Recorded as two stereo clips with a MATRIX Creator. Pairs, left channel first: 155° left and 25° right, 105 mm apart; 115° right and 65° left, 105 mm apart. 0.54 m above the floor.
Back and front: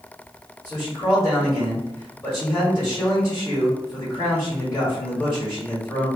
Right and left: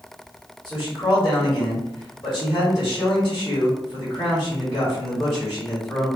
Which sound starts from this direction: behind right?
A man speaking, at 0.7 s.